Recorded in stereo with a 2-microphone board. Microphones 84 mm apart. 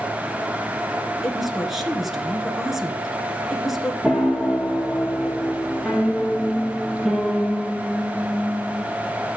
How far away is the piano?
About 1.3 m.